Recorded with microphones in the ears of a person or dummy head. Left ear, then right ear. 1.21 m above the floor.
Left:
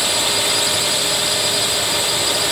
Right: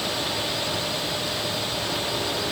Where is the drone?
60° left (ahead or behind).